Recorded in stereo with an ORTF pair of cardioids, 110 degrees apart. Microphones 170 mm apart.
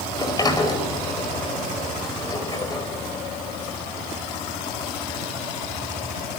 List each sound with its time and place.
0.1 s a sliding door: 25° left, 4.5 m